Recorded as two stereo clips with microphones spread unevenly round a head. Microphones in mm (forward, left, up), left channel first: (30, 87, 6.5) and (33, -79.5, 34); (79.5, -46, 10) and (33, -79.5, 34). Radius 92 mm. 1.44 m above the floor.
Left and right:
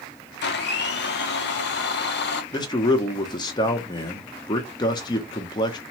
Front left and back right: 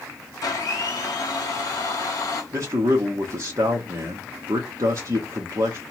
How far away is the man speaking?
About 0.5 m.